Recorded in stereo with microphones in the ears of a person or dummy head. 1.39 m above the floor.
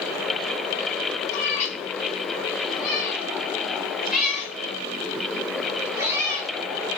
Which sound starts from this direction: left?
A cat meowing, at 1.3 s.